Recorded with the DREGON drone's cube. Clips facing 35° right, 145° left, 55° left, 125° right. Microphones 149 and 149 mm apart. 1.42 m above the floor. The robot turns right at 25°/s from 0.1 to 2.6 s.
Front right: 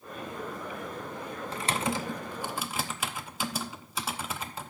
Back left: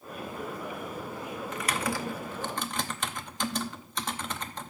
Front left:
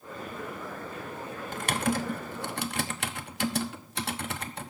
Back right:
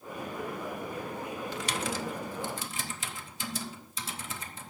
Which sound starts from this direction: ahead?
Typing on a keyboard, at 1.5 s.